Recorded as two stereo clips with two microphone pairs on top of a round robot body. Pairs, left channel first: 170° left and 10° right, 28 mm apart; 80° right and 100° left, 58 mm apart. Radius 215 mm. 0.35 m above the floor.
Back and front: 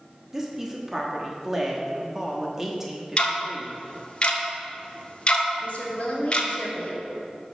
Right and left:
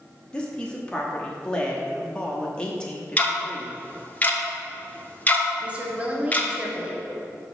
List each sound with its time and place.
0.3 s a woman speaking: 50° right, 1.4 m
3.2 s ticking: 140° right, 0.9 m
5.6 s a woman speaking: 160° left, 1.3 m